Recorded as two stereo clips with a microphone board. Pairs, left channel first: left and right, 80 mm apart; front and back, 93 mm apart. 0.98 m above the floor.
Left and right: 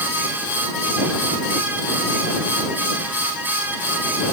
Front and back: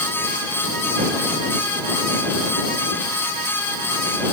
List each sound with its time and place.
Only background noise.